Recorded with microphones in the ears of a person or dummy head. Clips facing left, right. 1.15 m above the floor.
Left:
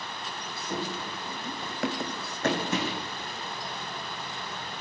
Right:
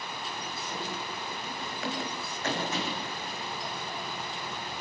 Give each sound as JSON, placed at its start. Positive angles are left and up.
{"t": 0.7, "sound": "running footsteps", "side_deg": 50, "distance_m": 3.0}